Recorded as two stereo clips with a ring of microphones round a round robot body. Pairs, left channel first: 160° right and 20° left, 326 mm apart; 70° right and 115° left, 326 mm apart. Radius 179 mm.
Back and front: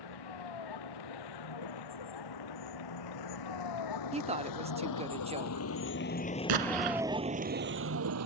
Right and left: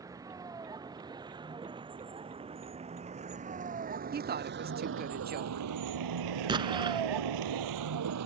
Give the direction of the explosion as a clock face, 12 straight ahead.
11 o'clock.